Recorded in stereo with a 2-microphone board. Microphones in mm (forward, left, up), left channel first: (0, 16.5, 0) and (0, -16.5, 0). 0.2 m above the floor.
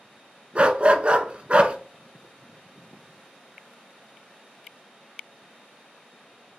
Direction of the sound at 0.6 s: 40° right (ahead or behind).